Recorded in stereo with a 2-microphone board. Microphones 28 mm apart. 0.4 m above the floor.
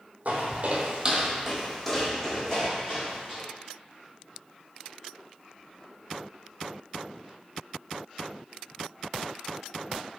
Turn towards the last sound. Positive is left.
turn(degrees=30)  # may be behind; listen again after turning